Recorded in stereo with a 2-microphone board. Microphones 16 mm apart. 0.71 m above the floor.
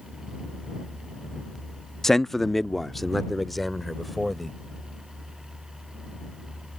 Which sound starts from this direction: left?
A man speaking, at 2.0 s.